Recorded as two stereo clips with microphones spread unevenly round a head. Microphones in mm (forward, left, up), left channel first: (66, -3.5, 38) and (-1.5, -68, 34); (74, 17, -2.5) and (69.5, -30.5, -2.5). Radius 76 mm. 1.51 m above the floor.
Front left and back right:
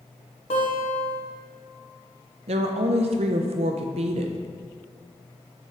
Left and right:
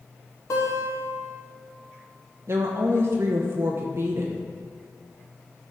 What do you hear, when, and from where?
0.5 s a guitar: 80° left, 1.3 m
2.5 s a woman speaking: 140° right, 0.6 m